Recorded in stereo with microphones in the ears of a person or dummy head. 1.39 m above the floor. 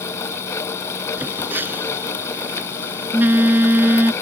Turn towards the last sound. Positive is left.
turn(degrees=-10)  # may be behind; listen again after turning